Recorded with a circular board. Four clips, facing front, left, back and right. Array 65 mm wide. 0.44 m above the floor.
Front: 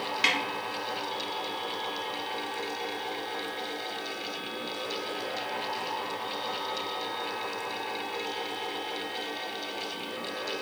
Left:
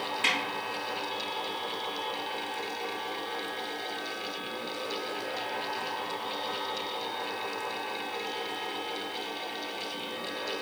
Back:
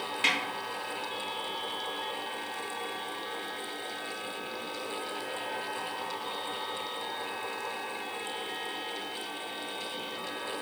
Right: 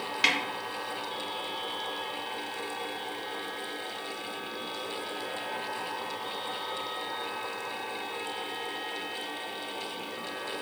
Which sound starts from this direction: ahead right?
A snare drum, at 0.2 s.